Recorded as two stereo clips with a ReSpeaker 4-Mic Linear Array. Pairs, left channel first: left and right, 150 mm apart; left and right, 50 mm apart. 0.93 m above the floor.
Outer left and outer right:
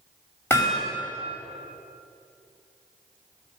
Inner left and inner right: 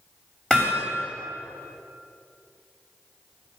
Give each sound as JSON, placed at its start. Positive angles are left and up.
{"t": 0.5, "sound": "hammering", "side_deg": 15, "distance_m": 3.0}